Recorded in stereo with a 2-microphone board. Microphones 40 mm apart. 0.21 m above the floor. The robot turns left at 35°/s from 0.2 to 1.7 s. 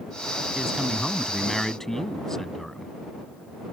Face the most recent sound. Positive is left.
turn(degrees=165)